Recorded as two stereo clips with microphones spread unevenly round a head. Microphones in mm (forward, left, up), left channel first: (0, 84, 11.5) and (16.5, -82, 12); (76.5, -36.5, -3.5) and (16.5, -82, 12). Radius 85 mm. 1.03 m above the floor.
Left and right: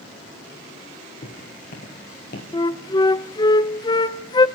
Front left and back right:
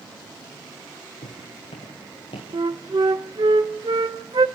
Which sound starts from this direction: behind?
A flute, at 2.5 s.